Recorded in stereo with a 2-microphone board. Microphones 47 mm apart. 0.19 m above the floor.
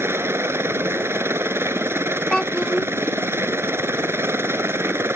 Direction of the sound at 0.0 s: 55° right (ahead or behind).